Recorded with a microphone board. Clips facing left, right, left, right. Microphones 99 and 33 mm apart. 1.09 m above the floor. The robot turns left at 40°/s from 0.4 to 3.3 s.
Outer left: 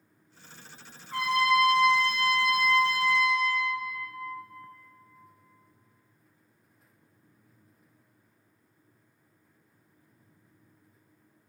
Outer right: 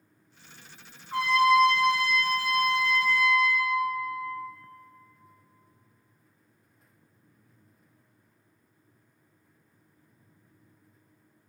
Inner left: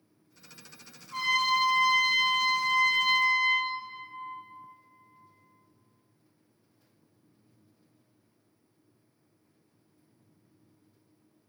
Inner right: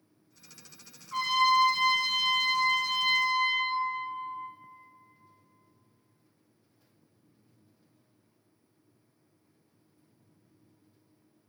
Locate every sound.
1.1 s a trumpet: 30° right, 0.7 m; by 3.7 s 120° right, 0.7 m